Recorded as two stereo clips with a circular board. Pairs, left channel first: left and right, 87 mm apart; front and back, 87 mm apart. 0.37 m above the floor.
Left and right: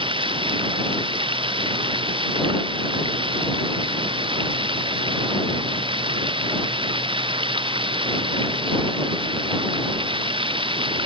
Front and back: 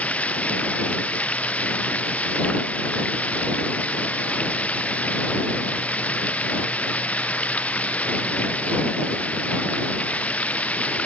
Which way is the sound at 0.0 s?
75° right.